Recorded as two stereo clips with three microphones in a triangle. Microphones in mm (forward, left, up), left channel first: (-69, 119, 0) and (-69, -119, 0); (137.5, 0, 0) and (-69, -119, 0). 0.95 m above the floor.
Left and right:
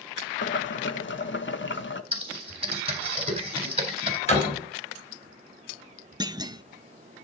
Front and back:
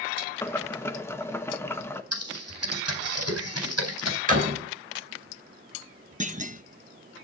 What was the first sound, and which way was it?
Boiling, 105° left.